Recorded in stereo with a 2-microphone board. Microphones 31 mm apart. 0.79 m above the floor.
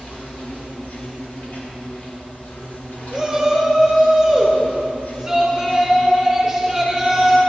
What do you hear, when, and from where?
0.0 s an insect: 65° left (ahead or behind), 2.5 m
3.1 s a shout: 20° right (ahead or behind), 3.5 m